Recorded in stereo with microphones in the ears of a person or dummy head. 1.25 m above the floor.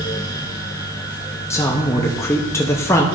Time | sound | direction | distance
1.5 | a man speaking | 15° left (ahead or behind) | 0.5 m